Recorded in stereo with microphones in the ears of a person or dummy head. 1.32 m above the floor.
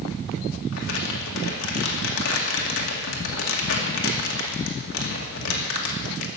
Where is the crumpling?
70° left (ahead or behind), 2 m.